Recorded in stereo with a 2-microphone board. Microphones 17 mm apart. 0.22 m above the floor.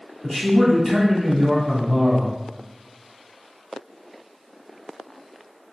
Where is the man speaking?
30° left (ahead or behind), 1.4 m.